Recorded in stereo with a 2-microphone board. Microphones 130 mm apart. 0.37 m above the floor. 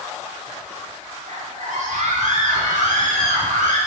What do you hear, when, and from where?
1.3 s a scream: 65° right (ahead or behind), 4 m; by 3.8 s 70° right (ahead or behind), 4 m